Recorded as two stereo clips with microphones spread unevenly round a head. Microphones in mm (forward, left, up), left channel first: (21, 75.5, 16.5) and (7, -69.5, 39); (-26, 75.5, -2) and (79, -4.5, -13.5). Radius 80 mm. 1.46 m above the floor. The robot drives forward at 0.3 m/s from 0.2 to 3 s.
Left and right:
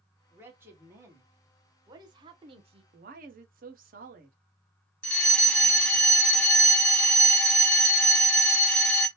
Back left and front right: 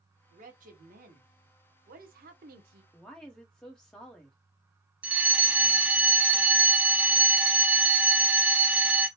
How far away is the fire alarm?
About 0.7 m.